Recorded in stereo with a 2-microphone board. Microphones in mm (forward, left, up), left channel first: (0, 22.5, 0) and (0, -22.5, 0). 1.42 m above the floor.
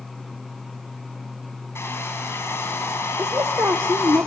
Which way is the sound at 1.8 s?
75° left (ahead or behind).